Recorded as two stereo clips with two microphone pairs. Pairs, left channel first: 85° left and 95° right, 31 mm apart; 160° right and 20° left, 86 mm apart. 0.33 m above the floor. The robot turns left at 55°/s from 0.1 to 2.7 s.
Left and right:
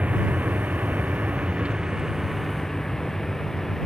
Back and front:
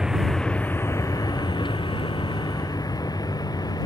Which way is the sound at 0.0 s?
60° right.